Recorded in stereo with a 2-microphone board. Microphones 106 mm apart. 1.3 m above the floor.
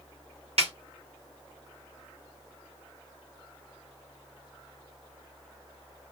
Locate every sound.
0.6 s a snare drum: 70° right (ahead or behind), 1.2 m